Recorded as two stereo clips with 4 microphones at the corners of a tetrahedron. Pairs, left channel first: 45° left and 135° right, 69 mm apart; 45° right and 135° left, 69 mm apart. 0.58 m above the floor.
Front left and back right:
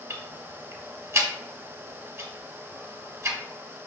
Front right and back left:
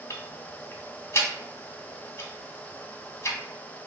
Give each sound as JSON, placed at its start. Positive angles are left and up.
{"t": 0.1, "sound": "ticking", "azimuth_deg": -90, "distance_m": 0.7}